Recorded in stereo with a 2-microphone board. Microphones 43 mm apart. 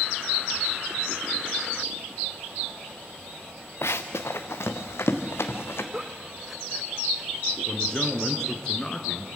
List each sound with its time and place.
3.8 s running footsteps: 75° left (ahead or behind), 1.0 m; by 5.8 s 65° left (ahead or behind), 2.5 m
5.9 s a giggle: 10° right (ahead or behind), 0.6 m
7.7 s a man speaking: 15° left (ahead or behind), 1.8 m